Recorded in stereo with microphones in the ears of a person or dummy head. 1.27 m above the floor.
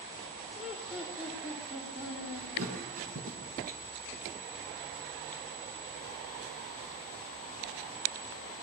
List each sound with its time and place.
0.6 s laughter: 5° right (ahead or behind), 4.5 m
2.6 s a thud: 45° right (ahead or behind), 5 m